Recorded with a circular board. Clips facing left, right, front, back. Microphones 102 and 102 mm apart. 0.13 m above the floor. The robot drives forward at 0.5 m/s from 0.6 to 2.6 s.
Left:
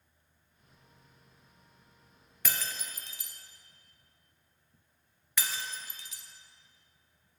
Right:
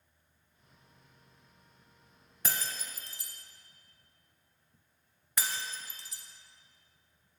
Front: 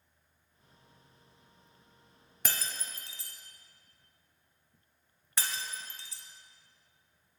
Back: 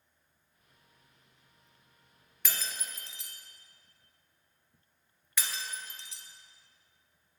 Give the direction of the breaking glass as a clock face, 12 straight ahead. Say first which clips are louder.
Even, front 1 dB; 1 o'clock.